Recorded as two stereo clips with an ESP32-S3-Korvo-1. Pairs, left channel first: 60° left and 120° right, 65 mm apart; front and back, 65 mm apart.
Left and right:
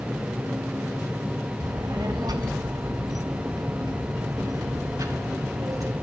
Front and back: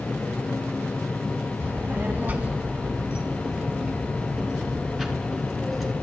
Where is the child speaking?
120° right, 2.5 m; by 5.9 s 85° right, 4 m.